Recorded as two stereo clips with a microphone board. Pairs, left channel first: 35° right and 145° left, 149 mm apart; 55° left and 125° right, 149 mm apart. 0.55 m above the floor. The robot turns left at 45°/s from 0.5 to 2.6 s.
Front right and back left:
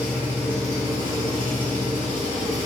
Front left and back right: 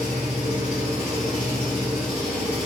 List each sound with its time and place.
0.0 s an engine running: 140° right, 1.7 m; by 2.7 s 125° left, 1.7 m